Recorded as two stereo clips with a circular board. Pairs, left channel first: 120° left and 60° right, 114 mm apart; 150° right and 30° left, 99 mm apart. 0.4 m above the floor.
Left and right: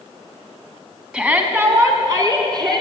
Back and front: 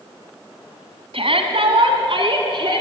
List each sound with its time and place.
1.1 s a shout: 20° left, 3 m; by 2.8 s 10° right, 4.5 m